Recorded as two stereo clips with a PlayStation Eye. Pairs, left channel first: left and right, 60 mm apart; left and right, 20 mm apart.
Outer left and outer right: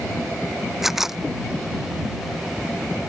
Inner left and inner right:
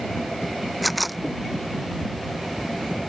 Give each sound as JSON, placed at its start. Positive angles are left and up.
{"t": 0.8, "sound": "a camera shutter", "side_deg": -5}